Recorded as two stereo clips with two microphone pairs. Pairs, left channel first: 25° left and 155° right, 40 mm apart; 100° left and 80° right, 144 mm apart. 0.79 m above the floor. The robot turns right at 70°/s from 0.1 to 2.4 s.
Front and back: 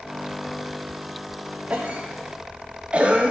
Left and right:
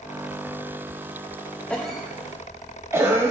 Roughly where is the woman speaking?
No woman speaking in this recording.